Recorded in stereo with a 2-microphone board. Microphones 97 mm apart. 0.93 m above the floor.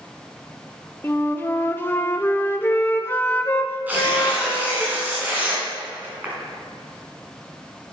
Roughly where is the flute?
Left.